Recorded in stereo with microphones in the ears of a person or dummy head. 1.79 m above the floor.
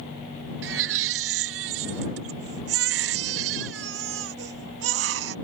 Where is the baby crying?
60° right (ahead or behind).